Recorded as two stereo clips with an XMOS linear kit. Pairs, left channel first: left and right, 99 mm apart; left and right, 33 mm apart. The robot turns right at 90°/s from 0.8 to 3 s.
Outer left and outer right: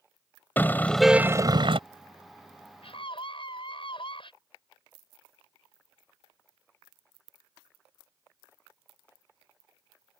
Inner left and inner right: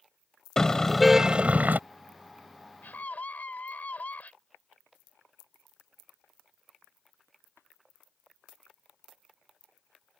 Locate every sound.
0.6 s a car horn: 160° left; by 1.8 s 110° right
2.8 s a scream: 80° left; by 4.3 s 65° left (ahead or behind)